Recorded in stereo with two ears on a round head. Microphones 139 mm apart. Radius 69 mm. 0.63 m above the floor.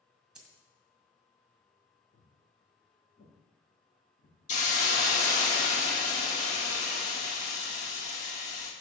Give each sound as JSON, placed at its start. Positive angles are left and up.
{"t": 0.3, "sound": "a dropped coin", "side_deg": -5, "distance_m": 1.5}
{"t": 2.1, "sound": "footsteps", "side_deg": 75, "distance_m": 4.0}
{"t": 4.5, "sound": "a hiss", "side_deg": 50, "distance_m": 1.2}